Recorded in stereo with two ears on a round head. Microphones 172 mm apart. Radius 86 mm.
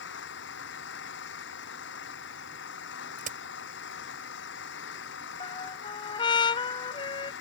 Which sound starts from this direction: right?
A crack, at 3.2 s.